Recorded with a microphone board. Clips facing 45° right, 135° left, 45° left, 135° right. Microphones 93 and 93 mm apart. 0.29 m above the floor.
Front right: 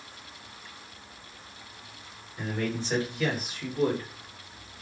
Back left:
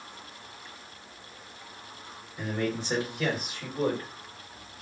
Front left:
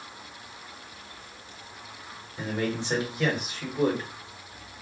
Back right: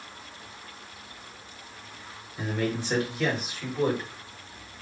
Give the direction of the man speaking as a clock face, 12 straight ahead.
10 o'clock.